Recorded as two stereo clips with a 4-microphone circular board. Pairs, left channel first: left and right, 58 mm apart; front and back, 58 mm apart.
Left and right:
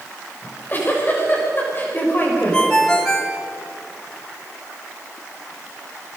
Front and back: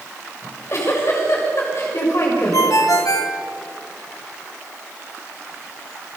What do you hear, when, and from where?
0.4 s a giggle: 35° left, 7 m
2.5 s a ringtone: 15° left, 1.9 m